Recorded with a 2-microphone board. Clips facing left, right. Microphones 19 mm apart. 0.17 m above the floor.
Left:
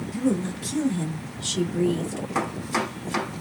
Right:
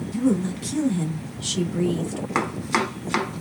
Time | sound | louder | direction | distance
0.1 | a woman speaking | right 3 dB | 20° right (ahead or behind) | 1.9 m
2.4 | chopping | right 3 dB | 35° right (ahead or behind) | 1.1 m